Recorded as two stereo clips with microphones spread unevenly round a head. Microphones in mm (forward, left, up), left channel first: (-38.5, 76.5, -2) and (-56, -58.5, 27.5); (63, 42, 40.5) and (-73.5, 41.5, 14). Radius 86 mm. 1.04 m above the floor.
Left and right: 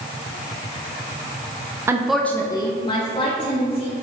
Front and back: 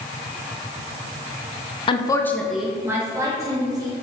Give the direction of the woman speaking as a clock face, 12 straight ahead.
1 o'clock.